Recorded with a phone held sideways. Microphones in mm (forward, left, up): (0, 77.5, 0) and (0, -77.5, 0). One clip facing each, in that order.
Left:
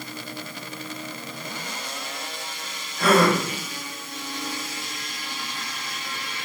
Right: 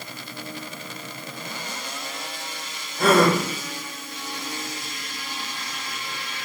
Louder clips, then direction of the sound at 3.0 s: Right 1 dB; 30° right (ahead or behind).